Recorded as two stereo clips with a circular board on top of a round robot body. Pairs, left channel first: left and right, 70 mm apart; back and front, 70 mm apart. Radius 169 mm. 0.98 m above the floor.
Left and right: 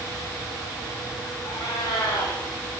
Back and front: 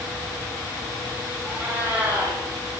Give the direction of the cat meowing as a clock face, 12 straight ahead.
10 o'clock.